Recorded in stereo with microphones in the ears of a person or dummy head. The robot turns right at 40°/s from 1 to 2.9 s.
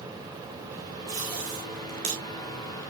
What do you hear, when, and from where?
1.1 s tape being pulled: 25° right (ahead or behind), 4.5 m; by 2.2 s 70° right (ahead or behind), 4.5 m